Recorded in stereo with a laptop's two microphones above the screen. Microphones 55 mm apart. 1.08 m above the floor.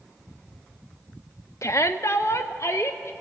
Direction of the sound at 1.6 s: 65° left (ahead or behind).